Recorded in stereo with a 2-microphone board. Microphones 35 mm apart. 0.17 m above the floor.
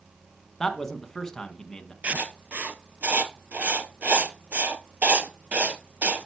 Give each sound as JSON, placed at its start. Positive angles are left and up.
{"t": 0.6, "sound": "a man speaking", "side_deg": 15, "distance_m": 1.2}
{"t": 2.0, "sound": "writing", "side_deg": -50, "distance_m": 0.8}